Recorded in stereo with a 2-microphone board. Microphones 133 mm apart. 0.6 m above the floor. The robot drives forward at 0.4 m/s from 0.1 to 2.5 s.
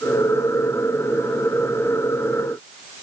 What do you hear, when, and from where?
Only background noise.